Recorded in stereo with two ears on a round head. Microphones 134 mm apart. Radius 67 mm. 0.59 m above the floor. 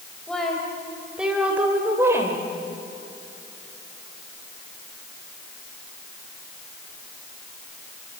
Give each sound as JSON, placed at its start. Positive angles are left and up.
{"t": 0.3, "sound": "a woman speaking", "side_deg": 5, "distance_m": 3.5}